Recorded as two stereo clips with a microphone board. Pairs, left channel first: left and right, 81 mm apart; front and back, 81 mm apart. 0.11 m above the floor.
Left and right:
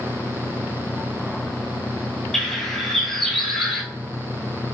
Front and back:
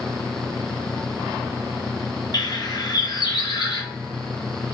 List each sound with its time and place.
2.3 s a bird: 5° left, 0.7 m